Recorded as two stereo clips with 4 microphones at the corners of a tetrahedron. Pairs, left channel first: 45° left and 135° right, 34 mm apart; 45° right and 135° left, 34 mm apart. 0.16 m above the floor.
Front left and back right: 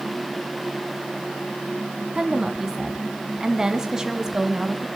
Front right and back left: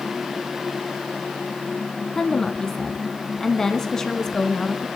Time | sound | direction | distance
2.1 | a woman speaking | 95° right | 1.1 m